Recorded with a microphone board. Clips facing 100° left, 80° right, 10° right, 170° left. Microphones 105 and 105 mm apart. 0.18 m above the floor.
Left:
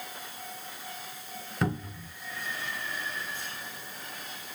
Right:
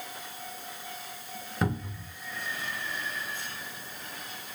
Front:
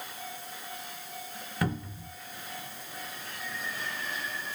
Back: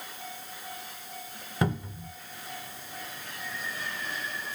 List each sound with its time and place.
1.6 s a cupboard door: 165° right, 0.6 m